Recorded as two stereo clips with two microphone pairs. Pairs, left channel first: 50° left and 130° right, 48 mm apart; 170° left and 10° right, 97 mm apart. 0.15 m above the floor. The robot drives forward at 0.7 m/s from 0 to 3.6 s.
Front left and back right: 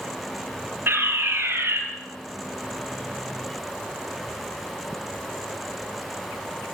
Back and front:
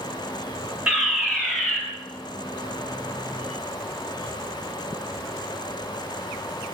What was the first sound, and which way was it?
A fire alarm, 95° right.